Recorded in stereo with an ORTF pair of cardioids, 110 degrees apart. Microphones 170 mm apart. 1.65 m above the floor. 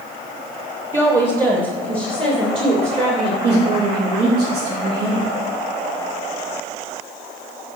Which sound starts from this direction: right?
A woman speaking, at 3.4 s.